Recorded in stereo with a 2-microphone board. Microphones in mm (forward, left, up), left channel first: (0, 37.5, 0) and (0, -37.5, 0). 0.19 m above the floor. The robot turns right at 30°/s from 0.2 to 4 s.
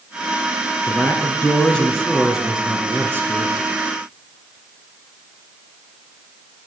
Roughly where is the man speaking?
Behind left.